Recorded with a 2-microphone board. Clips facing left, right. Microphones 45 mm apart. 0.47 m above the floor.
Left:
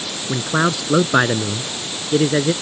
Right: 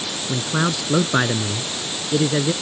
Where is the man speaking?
20° left (ahead or behind).